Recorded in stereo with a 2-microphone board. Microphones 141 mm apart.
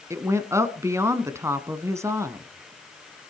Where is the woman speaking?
20° right (ahead or behind), 1.0 m.